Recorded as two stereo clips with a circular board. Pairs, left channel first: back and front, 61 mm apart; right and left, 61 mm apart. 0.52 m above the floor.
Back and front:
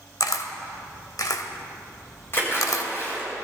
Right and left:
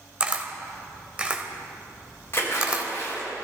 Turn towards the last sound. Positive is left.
turn(degrees=-135)